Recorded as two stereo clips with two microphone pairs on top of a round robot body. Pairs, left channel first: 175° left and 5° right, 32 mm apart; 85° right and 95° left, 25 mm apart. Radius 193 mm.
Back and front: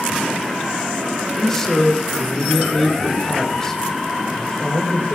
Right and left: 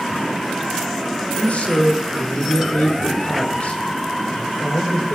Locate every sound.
1.4 s a man speaking: 110° right, 3 m